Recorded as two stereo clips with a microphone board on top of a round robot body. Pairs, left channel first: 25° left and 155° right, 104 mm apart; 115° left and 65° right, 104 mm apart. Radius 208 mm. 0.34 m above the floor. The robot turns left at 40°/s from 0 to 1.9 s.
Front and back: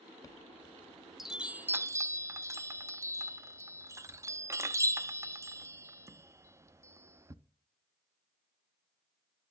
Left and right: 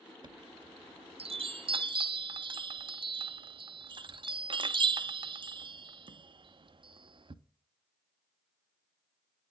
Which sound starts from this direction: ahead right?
A chime, at 0.2 s.